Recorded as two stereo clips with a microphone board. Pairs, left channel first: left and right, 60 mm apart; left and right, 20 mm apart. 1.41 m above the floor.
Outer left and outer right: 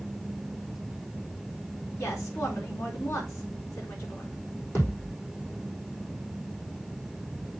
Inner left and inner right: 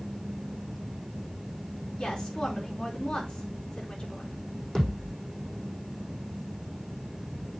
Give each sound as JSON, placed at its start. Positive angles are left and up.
{"t": 2.0, "sound": "a woman speaking", "side_deg": 45, "distance_m": 4.0}
{"t": 4.8, "sound": "a thud", "side_deg": 45, "distance_m": 5.0}